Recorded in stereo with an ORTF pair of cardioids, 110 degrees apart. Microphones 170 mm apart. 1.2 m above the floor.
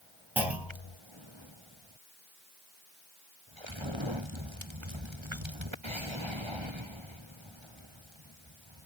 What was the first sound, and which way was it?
A clunk, 10° right.